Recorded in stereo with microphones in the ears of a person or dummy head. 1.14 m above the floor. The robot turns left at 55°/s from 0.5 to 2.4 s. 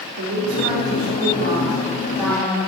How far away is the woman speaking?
About 2 m.